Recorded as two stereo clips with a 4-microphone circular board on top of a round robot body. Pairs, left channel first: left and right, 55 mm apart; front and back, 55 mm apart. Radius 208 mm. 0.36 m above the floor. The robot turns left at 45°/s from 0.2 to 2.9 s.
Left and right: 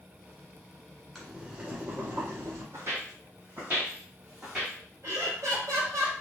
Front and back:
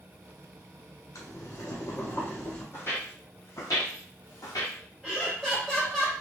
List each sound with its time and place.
1.1 s boiling: 5° right, 1.5 m; by 2.6 s 70° right, 1.5 m
2.7 s footsteps: 45° right, 1.1 m; by 4.8 s 10° right, 1.7 m
5.0 s laughter: 95° right, 1.6 m